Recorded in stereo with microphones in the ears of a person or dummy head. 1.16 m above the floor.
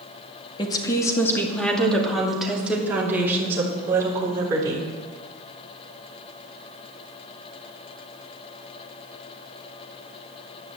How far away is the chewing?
I don't hear chewing.